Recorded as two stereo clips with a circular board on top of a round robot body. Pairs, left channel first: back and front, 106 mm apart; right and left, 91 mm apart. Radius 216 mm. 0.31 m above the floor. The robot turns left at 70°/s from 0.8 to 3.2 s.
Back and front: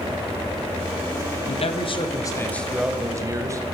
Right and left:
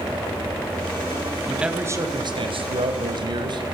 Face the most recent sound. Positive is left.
turn(degrees=60)